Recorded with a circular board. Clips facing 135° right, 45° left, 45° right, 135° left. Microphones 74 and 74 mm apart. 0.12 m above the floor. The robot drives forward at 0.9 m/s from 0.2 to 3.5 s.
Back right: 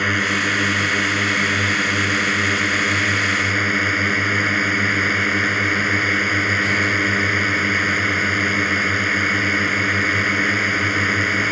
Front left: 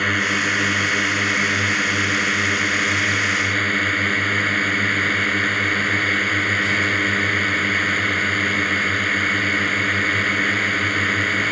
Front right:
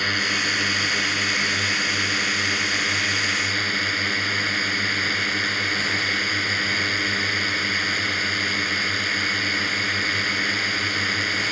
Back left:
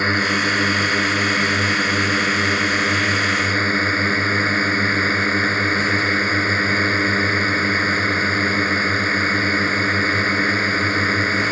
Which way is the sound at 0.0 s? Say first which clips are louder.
Back right 1 dB, back left 6 dB; 140° left.